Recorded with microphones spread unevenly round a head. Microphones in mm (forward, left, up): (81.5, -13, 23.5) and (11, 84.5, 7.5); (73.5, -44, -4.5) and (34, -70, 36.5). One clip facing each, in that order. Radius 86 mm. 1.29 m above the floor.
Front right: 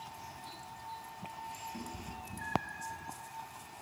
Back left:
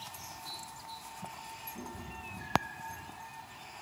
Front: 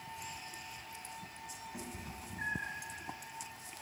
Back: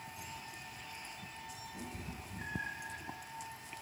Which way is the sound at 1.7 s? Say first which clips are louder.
Even, even; 20° right.